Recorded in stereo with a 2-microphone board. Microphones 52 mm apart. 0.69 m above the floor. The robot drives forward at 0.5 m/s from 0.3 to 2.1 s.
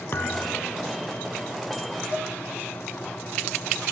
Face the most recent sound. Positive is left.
turn(degrees=-50)  # may be behind; listen again after turning